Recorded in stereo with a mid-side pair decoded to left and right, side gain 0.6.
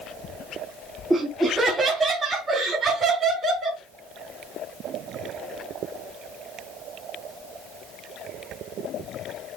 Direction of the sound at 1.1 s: 20° right.